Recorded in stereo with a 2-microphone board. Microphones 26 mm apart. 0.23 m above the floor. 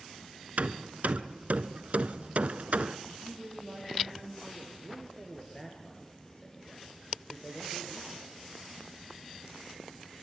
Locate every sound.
0.6 s hammering: 65° right (ahead or behind), 0.7 m
3.1 s a woman speaking: 5° right (ahead or behind), 6.5 m
4.8 s a man speaking: 15° left (ahead or behind), 3.5 m